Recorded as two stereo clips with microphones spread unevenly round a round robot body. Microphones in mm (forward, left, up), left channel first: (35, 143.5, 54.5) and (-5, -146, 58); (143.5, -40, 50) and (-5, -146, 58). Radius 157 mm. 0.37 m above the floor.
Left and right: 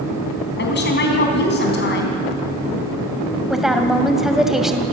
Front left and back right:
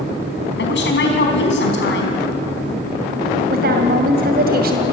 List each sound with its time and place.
0.6 s a woman speaking: 30° left, 3.5 m
3.5 s a woman speaking: 175° left, 2 m